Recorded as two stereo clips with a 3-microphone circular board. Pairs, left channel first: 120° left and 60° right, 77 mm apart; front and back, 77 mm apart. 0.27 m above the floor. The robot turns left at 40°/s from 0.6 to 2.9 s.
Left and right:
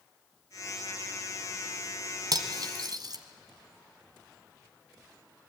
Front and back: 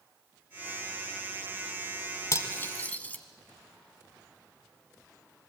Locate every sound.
2.3 s cutlery clinking: 45° right, 1.5 m; by 3.2 s 65° right, 1.5 m